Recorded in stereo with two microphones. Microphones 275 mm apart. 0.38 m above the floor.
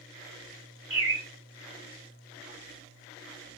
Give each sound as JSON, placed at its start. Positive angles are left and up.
{"t": 0.9, "sound": "a bird", "side_deg": 15, "distance_m": 1.6}